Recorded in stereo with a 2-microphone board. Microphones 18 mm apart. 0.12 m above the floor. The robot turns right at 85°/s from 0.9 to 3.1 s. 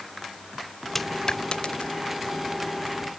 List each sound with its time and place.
0.9 s a dropped coin: 10° left (ahead or behind); by 2.0 s 80° left